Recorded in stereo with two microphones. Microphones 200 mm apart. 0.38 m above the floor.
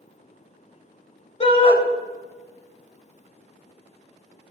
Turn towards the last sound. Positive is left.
turn(degrees=30)  # may be behind; listen again after turning